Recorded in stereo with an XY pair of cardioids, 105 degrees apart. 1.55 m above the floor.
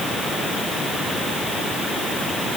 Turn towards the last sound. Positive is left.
No sound to turn to.